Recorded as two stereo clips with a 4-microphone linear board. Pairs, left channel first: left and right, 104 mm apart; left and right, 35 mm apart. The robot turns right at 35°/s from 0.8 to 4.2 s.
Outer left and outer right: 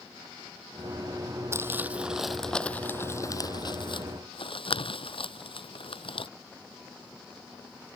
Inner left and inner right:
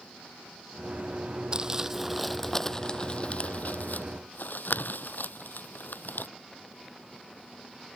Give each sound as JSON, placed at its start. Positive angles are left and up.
{"t": 1.5, "sound": "crumpling", "side_deg": -30}